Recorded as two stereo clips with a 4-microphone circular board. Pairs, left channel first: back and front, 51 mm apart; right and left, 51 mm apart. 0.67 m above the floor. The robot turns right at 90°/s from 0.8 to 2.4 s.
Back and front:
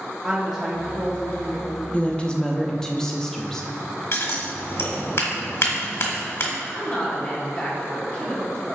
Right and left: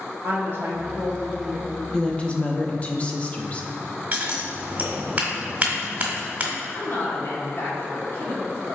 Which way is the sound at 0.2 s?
80° left.